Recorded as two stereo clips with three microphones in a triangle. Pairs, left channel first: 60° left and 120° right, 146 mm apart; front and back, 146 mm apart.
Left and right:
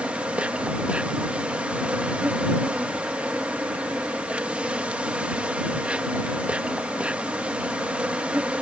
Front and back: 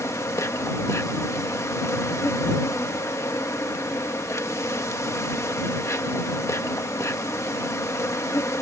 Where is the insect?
45° right.